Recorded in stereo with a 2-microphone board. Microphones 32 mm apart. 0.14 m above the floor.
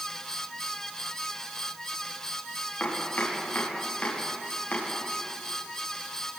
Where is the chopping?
60° left (ahead or behind), 7.5 m.